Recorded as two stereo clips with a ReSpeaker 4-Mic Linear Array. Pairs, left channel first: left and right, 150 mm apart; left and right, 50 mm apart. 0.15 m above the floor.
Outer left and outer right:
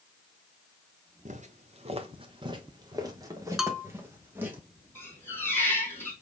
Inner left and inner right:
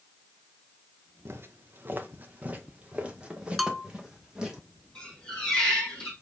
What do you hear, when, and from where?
1.2 s footsteps: 55° right (ahead or behind), 1.1 m; by 4.6 s 15° right (ahead or behind), 2.5 m
3.6 s a bell: 5° right (ahead or behind), 0.6 m
5.0 s a squeak: 15° left (ahead or behind), 3.5 m